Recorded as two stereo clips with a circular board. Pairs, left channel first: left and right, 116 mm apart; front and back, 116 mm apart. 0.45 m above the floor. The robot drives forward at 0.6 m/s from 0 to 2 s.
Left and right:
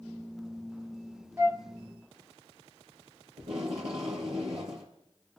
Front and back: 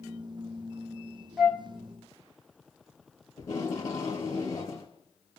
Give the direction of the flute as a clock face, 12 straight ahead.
3 o'clock.